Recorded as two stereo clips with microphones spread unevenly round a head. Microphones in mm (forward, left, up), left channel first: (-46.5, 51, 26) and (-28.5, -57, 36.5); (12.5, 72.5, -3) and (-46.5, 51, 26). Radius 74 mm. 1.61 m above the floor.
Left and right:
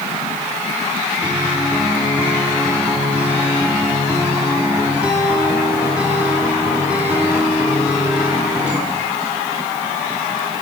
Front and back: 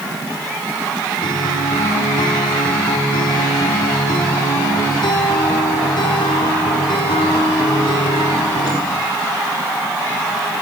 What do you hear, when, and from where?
1.2 s a guitar: straight ahead, 4 m